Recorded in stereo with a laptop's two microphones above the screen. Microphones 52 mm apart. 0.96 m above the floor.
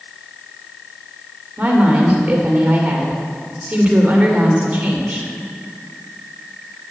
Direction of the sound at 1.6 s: 30° right (ahead or behind).